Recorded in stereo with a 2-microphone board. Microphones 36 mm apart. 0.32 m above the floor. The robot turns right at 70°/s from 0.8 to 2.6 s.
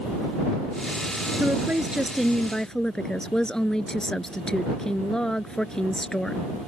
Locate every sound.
1.4 s a woman speaking: 60° right; by 6.4 s 20° left